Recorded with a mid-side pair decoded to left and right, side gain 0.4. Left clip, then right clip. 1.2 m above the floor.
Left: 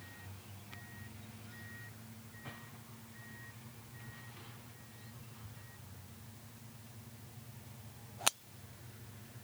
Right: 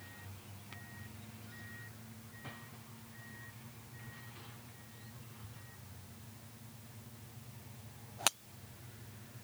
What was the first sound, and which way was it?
Only background noise.